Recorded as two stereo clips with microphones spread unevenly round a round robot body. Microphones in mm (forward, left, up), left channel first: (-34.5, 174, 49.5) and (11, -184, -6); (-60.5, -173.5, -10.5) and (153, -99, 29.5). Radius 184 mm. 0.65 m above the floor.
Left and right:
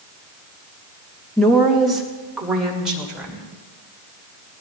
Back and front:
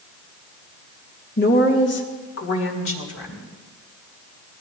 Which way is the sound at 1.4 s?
165° right.